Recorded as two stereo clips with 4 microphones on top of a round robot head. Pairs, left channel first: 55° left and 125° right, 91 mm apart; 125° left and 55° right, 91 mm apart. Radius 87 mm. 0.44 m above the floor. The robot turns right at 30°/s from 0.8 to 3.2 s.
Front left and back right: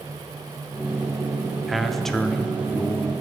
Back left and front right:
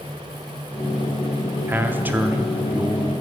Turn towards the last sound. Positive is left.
turn(degrees=10)